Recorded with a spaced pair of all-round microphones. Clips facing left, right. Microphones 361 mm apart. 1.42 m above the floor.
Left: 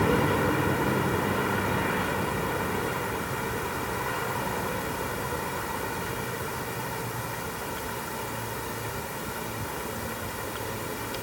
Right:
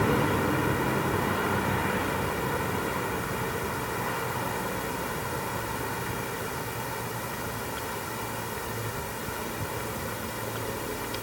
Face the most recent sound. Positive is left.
No sound to turn to.